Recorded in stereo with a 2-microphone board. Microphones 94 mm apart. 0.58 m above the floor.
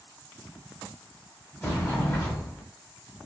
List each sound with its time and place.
1.6 s a sliding door: 20° left (ahead or behind), 1.4 m